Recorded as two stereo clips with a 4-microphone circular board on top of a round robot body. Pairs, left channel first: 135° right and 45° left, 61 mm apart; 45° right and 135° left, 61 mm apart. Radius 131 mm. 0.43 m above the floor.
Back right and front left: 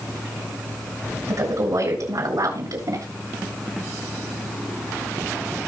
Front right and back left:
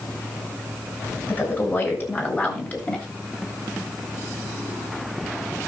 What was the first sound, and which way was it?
A woman speaking, 10° left.